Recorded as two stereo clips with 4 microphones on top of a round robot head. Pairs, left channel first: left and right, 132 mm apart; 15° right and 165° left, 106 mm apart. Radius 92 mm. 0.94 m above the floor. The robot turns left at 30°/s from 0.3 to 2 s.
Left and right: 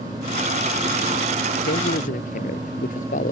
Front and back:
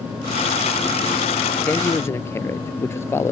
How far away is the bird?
I don't hear a bird.